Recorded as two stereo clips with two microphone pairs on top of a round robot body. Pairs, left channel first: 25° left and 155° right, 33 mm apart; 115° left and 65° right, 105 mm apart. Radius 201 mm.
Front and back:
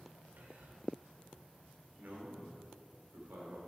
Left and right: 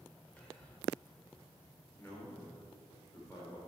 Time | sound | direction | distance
0.4 | whispering | 165° right | 1.6 m
2.0 | a man speaking | 175° right | 2 m